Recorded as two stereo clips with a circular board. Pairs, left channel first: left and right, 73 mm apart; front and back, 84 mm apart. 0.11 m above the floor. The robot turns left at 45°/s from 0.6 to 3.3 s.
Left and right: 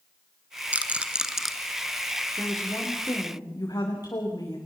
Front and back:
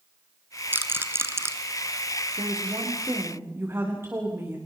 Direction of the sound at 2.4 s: 160° left.